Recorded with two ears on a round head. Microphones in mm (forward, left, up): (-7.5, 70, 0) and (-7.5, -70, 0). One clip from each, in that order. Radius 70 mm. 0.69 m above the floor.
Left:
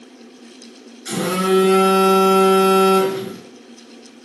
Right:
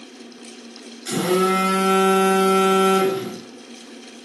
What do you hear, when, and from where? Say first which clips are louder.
1.1 s a phone buzzing: even; 5° left (ahead or behind), 1.7 m